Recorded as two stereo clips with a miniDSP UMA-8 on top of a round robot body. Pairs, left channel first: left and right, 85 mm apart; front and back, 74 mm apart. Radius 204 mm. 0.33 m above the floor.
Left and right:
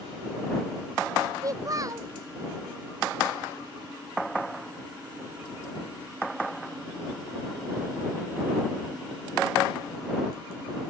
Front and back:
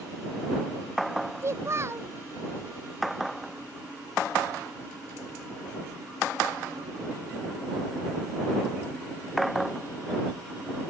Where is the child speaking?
135° right.